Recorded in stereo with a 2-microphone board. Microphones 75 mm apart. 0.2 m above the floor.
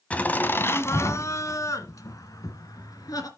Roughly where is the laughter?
Centre.